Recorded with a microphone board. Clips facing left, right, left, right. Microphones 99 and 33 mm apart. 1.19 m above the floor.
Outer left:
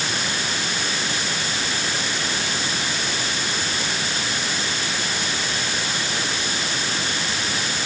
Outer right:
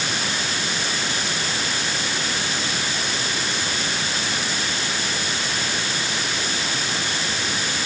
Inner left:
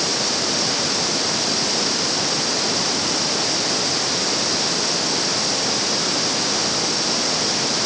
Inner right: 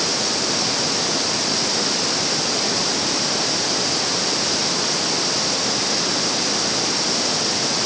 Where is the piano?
No piano in this recording.